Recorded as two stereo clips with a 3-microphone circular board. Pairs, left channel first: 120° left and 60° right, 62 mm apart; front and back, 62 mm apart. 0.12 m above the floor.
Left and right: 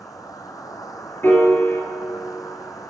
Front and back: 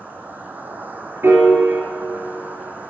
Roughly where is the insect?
Behind left.